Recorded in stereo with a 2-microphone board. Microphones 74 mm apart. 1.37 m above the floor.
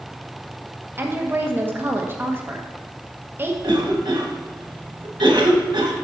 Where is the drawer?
No drawer in this recording.